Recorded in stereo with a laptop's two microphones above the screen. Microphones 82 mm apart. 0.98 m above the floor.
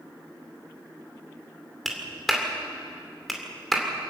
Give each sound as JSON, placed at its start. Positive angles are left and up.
{"t": 1.9, "sound": "a clap", "side_deg": 0, "distance_m": 2.5}